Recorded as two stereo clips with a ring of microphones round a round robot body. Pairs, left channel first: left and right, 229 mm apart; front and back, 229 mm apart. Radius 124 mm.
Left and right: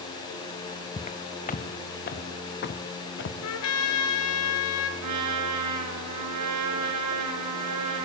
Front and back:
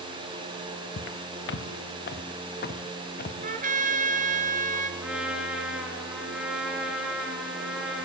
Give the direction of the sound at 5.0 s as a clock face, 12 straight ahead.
3 o'clock.